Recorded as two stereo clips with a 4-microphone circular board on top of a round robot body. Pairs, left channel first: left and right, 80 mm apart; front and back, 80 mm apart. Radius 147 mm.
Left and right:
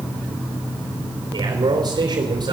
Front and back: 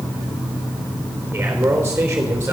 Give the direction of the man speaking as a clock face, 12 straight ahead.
4 o'clock.